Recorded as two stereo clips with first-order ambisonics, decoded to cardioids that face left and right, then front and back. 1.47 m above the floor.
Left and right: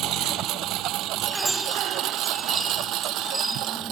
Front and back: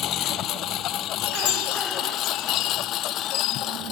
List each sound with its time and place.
0.0 s a lawn mower: 45° right; by 3.9 s 50° right
1.2 s a chime: 5° right